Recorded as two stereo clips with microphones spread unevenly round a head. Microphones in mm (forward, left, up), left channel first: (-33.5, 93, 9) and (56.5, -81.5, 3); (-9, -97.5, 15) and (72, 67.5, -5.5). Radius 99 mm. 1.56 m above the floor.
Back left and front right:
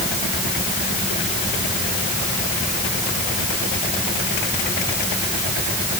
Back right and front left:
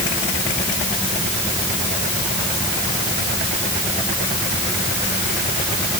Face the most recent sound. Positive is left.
No sound to turn to.